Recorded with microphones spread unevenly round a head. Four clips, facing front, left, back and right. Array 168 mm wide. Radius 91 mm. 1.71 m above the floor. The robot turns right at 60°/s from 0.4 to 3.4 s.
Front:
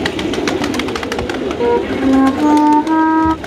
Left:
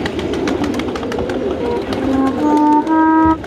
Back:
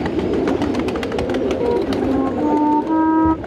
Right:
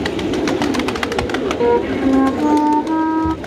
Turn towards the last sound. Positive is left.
turn(degrees=75)